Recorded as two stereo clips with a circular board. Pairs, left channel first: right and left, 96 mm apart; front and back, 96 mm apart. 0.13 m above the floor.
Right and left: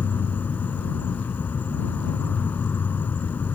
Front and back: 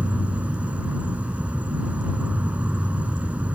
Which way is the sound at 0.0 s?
130° right.